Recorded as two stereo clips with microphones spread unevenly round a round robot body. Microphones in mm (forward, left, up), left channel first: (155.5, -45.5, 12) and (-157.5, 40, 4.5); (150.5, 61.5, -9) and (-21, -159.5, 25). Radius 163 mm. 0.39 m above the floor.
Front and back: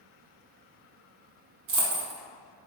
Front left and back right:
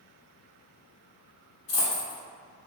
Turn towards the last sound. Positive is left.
turn(degrees=110)